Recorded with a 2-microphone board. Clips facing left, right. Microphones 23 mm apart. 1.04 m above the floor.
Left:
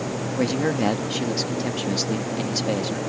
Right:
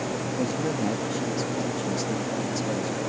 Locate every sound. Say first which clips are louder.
0.4 s a man speaking: left 6 dB; 80° left